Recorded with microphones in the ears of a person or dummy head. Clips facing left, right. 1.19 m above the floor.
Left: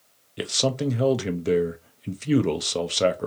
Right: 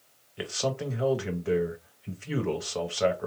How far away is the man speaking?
About 0.7 m.